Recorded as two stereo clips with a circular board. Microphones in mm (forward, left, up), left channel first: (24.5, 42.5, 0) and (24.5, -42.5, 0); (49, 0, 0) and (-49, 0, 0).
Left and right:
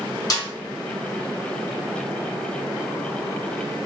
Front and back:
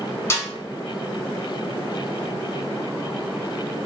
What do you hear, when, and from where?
0.3 s a snare drum: 55° left, 0.7 m